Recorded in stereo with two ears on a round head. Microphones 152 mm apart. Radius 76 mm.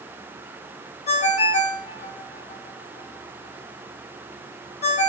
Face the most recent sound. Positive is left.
turn(degrees=40)  # may be behind; listen again after turning